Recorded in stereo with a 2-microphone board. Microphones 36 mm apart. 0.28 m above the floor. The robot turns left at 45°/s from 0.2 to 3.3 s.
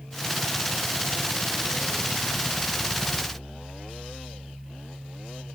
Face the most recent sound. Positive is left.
No sound to turn to.